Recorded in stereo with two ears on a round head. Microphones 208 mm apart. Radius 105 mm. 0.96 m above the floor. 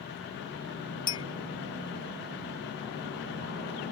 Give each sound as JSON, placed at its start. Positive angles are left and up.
{"t": 1.1, "sound": "a clink", "side_deg": 15, "distance_m": 0.7}